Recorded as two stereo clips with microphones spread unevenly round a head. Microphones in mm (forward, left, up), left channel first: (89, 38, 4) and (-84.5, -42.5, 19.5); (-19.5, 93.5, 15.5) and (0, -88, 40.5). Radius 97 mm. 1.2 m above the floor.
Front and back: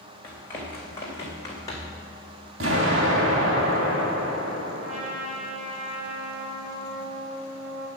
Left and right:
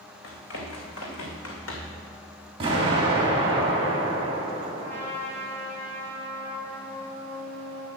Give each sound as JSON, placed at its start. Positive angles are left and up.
{"t": 0.2, "sound": "running footsteps", "azimuth_deg": 105, "distance_m": 4.0}
{"t": 2.6, "sound": "an explosion", "azimuth_deg": -140, "distance_m": 3.0}
{"t": 4.8, "sound": "a trumpet", "azimuth_deg": 175, "distance_m": 3.0}